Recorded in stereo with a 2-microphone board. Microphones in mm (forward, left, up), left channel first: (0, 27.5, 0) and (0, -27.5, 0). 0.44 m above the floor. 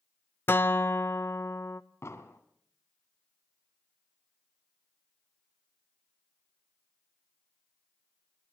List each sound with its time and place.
0.5 s a guitar: 40° left (ahead or behind), 0.7 m
2.0 s an explosion: 50° left (ahead or behind), 1.9 m